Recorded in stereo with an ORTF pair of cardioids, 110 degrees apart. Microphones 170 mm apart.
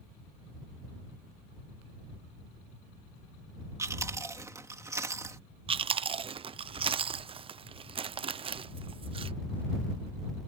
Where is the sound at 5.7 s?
35° right.